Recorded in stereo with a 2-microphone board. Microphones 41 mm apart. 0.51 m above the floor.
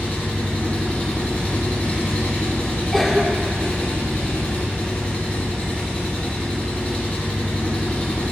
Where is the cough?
Centre (ahead or behind), 0.9 m.